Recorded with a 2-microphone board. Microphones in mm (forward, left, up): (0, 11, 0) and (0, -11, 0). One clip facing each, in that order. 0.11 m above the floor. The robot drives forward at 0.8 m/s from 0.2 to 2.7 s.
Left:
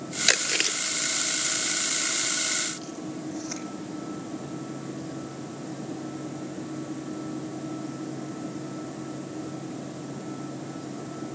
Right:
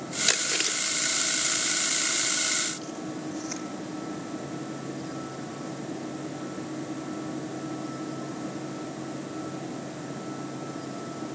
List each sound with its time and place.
0.3 s chewing: 25° left (ahead or behind), 1.0 m; by 3.6 s 10° left (ahead or behind), 2.5 m